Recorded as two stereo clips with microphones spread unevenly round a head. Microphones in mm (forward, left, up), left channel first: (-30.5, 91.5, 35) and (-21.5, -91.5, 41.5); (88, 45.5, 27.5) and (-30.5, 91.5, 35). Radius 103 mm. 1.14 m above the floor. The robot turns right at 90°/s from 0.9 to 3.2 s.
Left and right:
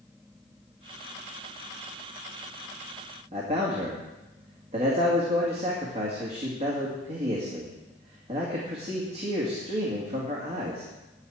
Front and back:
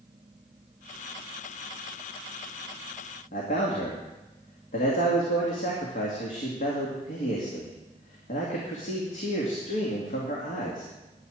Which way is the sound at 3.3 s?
30° right.